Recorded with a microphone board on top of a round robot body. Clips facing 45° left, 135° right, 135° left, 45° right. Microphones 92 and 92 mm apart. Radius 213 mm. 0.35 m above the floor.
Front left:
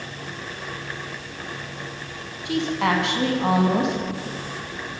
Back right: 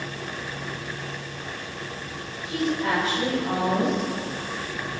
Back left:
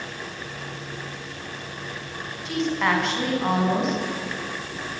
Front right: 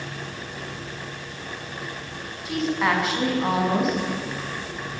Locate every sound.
2.5 s a woman speaking: 40° left, 4.5 m